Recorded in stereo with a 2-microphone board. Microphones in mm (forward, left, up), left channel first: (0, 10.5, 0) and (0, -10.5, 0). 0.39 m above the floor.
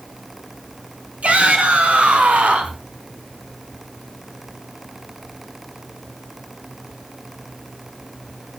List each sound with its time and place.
1.2 s a shout: 75° right (ahead or behind), 5 m; by 2.8 s 70° right (ahead or behind), 3.5 m